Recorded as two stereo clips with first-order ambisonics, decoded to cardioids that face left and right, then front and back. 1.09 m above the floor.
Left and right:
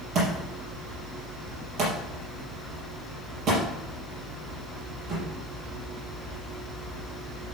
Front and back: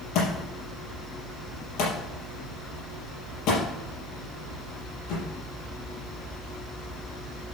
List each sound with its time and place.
0.1 s a thud: 30° right, 4.5 m